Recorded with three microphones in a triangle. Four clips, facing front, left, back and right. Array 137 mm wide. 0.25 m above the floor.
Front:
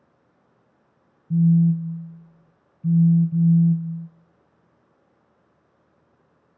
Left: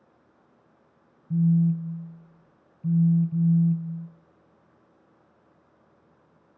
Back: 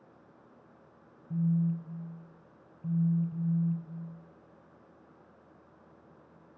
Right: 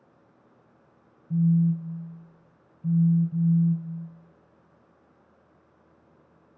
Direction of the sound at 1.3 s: 20° left.